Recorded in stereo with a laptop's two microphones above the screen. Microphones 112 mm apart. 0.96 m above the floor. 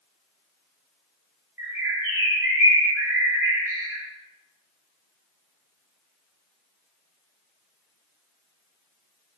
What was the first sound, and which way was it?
A bird, 20° right (ahead or behind).